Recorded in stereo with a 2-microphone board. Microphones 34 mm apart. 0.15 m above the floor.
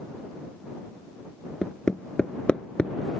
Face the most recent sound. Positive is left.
turn(degrees=30)  # may be behind; listen again after turning